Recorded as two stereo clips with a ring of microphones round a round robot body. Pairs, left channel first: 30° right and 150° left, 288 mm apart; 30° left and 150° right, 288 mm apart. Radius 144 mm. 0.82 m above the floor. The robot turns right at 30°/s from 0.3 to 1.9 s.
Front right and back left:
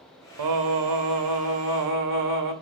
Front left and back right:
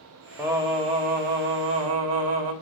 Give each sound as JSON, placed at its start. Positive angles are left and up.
{"t": 0.4, "sound": "singing", "azimuth_deg": 125, "distance_m": 1.5}